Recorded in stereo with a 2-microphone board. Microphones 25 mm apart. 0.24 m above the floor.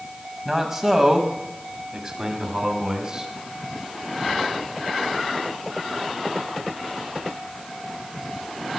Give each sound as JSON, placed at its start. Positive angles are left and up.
{"t": 0.5, "sound": "a man speaking", "side_deg": -15, "distance_m": 1.7}